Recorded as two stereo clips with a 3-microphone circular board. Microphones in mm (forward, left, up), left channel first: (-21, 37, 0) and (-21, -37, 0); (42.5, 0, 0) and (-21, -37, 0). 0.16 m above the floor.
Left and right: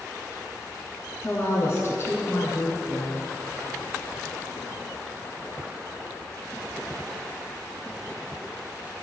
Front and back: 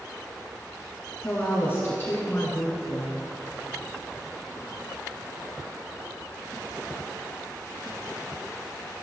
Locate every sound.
1.2 s a woman speaking: 70° left, 1.4 m